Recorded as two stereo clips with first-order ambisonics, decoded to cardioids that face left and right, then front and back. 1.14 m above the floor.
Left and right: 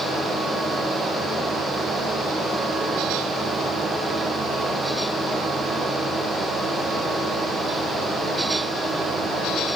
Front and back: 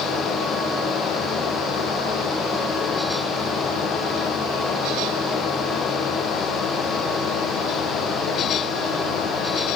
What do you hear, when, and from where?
Only background noise.